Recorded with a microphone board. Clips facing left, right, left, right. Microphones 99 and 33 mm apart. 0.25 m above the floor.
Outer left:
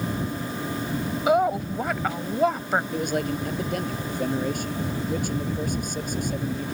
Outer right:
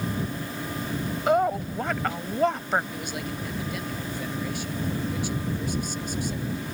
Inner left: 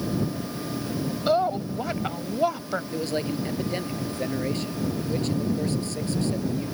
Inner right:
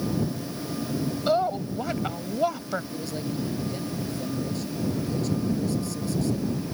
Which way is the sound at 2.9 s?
55° left (ahead or behind).